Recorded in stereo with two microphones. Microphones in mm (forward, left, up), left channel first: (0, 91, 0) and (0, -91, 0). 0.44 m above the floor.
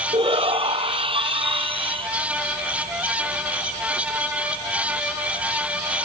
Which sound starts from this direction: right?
A shout, at 0.1 s.